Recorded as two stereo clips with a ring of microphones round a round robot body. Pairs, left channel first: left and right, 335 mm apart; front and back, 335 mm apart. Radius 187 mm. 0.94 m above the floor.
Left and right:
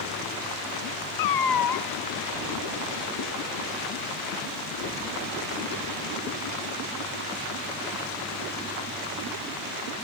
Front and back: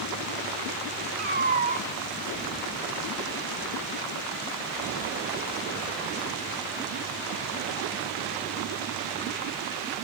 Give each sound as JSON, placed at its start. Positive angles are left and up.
{"t": 1.2, "sound": "a cat meowing", "azimuth_deg": 110, "distance_m": 1.0}